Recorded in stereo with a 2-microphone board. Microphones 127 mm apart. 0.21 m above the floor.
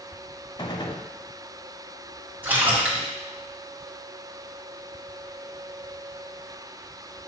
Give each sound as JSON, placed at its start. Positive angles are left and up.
{"t": 0.6, "sound": "a gunshot", "side_deg": 40, "distance_m": 0.8}
{"t": 2.4, "sound": "a splash", "side_deg": -15, "distance_m": 1.8}